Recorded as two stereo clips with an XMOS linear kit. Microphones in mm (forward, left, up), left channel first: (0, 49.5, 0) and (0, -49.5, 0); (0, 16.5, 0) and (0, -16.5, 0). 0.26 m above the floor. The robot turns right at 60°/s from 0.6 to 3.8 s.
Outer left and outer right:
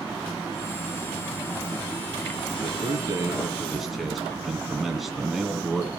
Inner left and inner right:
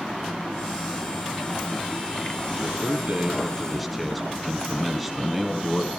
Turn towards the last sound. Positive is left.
turn(degrees=0)